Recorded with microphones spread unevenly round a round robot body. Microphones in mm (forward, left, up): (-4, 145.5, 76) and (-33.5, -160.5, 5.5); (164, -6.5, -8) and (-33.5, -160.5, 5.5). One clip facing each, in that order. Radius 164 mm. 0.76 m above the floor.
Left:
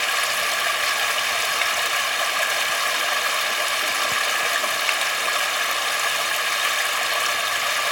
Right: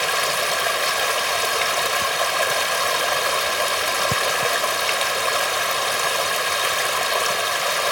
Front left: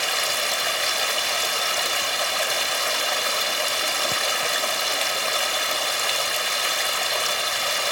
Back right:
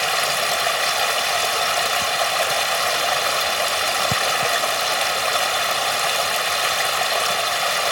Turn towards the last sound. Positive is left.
turn(degrees=-135)